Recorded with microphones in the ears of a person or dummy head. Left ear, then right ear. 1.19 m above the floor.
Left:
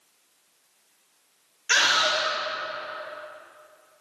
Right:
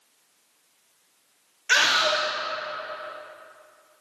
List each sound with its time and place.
1.7 s a scream: 20° right (ahead or behind), 1.6 m